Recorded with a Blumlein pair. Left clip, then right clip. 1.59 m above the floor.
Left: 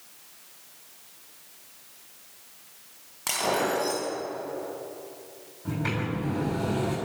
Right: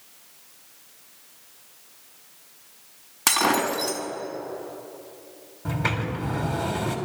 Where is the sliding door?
30° right, 3.5 m.